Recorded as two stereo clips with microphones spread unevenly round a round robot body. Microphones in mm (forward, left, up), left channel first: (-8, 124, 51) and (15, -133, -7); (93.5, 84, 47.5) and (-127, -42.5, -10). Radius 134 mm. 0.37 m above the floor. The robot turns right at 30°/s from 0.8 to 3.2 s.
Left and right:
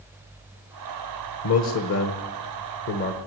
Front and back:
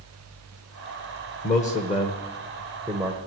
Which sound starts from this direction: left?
A man speaking, at 1.4 s.